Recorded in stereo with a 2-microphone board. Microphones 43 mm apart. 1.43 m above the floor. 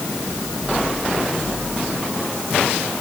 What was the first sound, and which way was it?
Only background noise.